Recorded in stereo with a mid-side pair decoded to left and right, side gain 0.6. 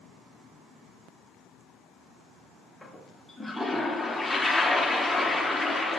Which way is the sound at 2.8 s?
10° left.